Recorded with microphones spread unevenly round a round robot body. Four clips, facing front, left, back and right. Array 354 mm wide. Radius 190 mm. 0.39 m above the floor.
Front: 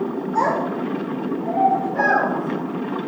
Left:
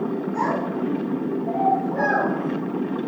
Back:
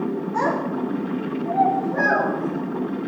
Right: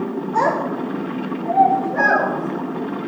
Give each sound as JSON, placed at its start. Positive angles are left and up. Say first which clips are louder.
{"t": 0.3, "sound": "a child speaking", "louder": "right 7 dB, front 3 dB", "azimuth_deg": -95, "distance_m": 3.5}